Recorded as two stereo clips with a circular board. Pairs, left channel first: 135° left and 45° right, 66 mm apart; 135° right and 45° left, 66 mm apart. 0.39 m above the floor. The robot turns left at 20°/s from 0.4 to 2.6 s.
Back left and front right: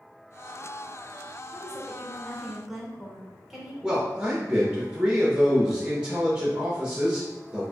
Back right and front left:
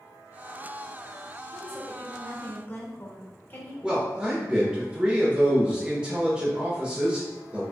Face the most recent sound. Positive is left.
turn(degrees=0)